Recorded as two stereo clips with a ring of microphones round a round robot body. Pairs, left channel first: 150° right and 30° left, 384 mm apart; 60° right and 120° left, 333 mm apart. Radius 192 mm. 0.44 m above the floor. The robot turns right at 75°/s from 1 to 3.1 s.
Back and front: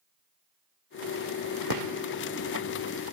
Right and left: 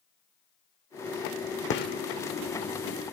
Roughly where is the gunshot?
Ahead.